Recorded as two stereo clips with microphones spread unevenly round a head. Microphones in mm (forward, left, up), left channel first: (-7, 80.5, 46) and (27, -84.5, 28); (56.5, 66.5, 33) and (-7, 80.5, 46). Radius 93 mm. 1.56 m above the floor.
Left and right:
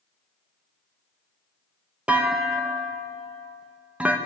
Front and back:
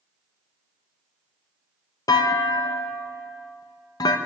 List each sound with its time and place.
2.1 s a clunk: 5° left, 1.4 m